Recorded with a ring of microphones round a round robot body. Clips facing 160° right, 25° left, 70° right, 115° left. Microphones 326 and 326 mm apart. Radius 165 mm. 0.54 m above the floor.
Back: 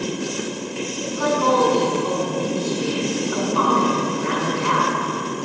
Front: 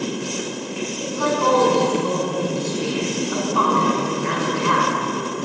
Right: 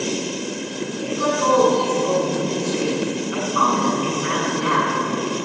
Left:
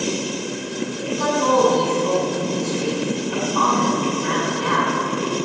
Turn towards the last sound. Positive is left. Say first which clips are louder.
# even, even
turn(degrees=10)